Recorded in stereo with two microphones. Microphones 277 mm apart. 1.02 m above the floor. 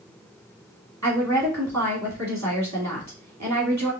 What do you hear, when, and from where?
1.0 s a woman speaking: 70° right (ahead or behind), 2 m